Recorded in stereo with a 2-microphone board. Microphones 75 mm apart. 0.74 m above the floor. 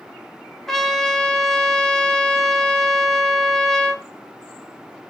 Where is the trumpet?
5° left (ahead or behind), 0.9 m.